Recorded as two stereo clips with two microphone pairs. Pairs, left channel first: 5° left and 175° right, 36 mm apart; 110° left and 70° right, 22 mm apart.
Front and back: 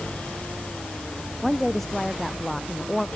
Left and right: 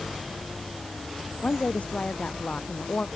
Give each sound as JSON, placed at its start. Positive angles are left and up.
{"t": 1.4, "sound": "a woman speaking", "azimuth_deg": 95}